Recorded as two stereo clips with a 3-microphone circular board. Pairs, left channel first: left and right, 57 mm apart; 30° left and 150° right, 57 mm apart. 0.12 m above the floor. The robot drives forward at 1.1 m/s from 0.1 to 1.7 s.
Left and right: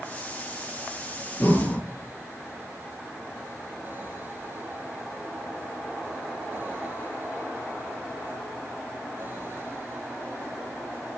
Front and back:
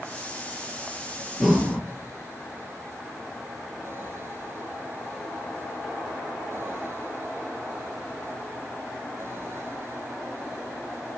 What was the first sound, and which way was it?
Breathing, 125° left.